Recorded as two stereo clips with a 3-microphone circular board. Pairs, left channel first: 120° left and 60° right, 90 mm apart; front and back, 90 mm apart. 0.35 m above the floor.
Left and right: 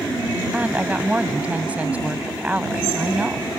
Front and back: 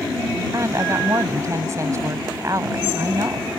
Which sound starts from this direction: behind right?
A woman speaking, at 0.5 s.